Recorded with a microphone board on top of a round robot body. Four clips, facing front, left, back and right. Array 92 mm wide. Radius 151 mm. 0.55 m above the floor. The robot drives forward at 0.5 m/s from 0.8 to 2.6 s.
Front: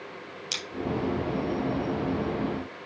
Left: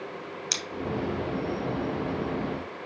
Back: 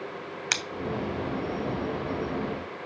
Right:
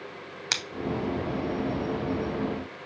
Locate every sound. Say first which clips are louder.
0.5 s scissors: right 6 dB, back 8 dB; 145° right, 0.8 m